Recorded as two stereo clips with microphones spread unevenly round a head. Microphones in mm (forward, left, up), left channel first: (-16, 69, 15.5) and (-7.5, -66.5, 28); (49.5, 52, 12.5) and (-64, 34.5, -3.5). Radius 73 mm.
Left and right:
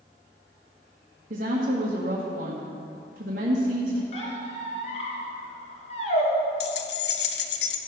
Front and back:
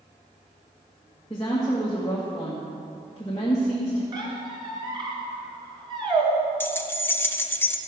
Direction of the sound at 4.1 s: 140° left.